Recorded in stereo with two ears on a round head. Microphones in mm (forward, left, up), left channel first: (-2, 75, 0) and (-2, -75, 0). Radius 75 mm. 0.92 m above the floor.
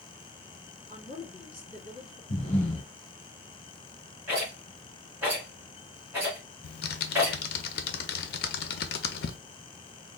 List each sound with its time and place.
0.9 s a woman speaking: 30° left (ahead or behind), 2 m
2.3 s breathing: 40° left (ahead or behind), 1.6 m
4.3 s a rattle: 10° right (ahead or behind), 2 m
6.6 s typing on a keyboard: 60° left (ahead or behind), 0.6 m